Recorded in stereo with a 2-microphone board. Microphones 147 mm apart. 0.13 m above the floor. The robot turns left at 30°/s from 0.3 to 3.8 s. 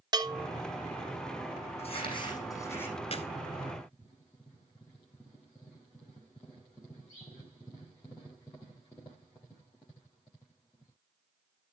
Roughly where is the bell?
Right.